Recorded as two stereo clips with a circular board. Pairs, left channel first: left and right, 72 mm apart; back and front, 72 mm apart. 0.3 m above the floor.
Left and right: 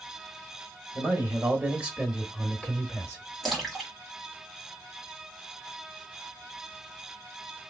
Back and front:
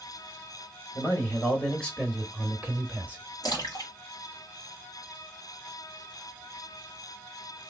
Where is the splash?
175° right, 1.5 m.